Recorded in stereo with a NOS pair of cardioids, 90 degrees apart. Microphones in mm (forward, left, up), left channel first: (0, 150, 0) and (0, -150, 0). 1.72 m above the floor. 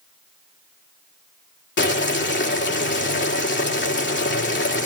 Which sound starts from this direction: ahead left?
Boiling, at 1.8 s.